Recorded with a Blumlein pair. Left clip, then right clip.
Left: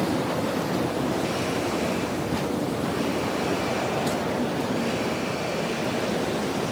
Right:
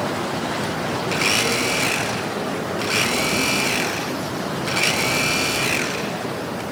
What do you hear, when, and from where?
1.1 s a blender: 40° right, 0.7 m